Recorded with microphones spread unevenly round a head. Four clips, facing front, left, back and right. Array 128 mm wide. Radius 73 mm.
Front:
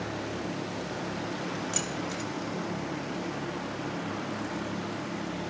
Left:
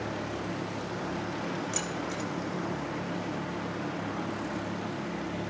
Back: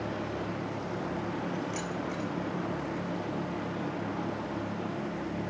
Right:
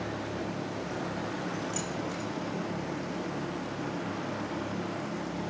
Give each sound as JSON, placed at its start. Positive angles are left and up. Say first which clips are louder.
{"t": 1.7, "sound": "keys jangling", "louder": "even, even", "azimuth_deg": 20, "distance_m": 4.0}